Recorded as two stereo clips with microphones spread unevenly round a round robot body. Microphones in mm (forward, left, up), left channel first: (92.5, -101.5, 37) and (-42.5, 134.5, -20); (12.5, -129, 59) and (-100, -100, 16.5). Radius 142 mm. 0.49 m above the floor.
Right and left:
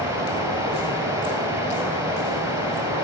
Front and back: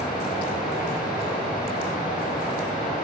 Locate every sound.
0.0 s running water: 40° left, 5.5 m